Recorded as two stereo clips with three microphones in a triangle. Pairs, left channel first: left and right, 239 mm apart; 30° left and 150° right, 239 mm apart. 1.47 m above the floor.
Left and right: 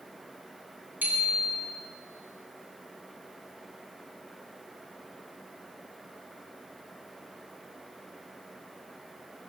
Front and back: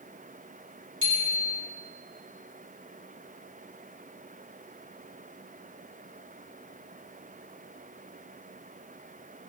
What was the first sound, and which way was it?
A bicycle bell, 170° right.